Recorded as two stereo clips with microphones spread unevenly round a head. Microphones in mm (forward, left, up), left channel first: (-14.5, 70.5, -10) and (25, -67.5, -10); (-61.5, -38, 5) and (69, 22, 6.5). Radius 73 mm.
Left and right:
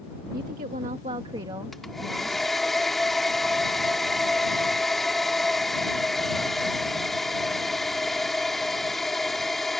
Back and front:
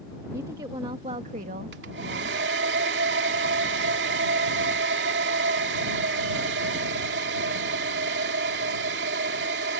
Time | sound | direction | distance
0.3 | a woman speaking | 45° right | ?
1.7 | a hair dryer | 15° left | ?